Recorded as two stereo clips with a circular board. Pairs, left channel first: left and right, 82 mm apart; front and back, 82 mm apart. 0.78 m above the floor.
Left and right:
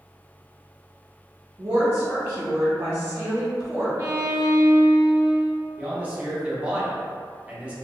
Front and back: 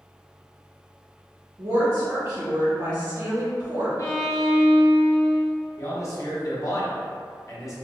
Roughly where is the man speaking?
Ahead right.